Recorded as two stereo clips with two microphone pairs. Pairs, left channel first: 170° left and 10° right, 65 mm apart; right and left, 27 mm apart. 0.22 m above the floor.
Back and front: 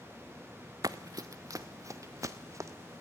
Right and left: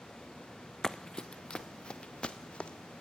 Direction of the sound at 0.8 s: 20° right.